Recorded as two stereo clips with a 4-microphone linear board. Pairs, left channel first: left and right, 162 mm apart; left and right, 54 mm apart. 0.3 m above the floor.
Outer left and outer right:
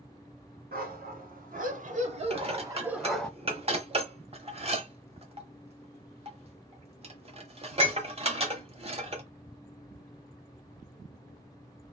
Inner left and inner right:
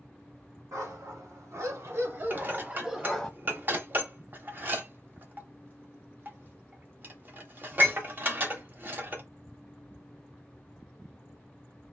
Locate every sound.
0.7 s a dog barking: 70° right (ahead or behind), 1.3 m; by 3.3 s 10° left (ahead or behind), 0.6 m
2.3 s dishes clattering: 40° right (ahead or behind), 0.8 m